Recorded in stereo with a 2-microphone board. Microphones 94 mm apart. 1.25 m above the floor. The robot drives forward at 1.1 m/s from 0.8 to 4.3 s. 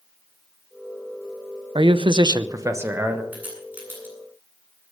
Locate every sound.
1.8 s a man speaking: 60° right (ahead or behind), 0.6 m; by 3.2 s 20° right (ahead or behind), 1.5 m
3.3 s a crack: 20° right (ahead or behind), 10 m